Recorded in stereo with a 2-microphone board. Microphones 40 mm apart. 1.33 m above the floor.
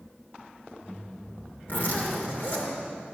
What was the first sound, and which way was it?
A zipper, 50° left (ahead or behind).